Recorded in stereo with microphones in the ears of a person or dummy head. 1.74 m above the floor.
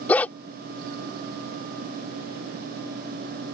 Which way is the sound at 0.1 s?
10° left (ahead or behind).